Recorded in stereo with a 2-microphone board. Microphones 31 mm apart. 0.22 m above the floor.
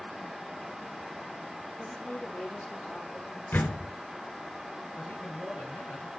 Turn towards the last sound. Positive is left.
turn(degrees=70)  # may be behind; listen again after turning